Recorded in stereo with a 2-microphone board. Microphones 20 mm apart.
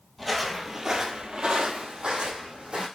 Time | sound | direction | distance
0.2 | footsteps | 5° right (ahead or behind) | 0.8 m